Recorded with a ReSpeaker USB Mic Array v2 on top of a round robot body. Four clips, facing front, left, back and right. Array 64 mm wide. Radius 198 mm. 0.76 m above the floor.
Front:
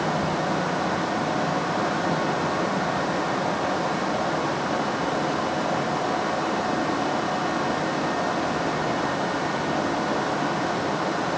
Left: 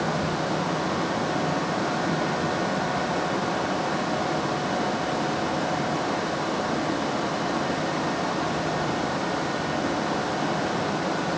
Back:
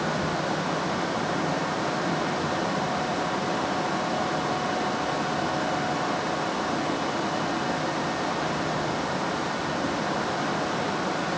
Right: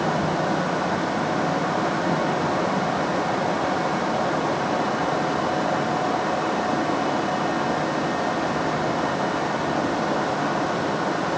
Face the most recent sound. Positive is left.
No sound to turn to.